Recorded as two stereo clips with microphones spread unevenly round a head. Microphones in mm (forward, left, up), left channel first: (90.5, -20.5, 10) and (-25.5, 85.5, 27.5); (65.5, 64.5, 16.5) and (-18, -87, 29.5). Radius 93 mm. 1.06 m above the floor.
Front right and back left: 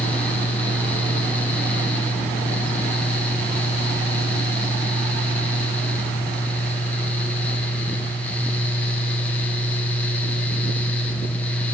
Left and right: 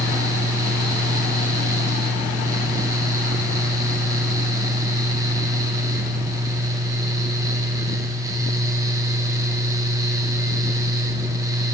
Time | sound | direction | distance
0.0 | a fan | 80° right | 0.9 m